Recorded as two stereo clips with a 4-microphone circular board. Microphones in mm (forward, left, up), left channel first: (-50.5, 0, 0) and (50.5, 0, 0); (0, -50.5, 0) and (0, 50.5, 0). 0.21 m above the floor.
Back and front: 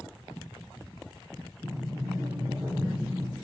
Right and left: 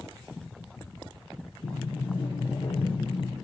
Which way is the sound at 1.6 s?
60° right.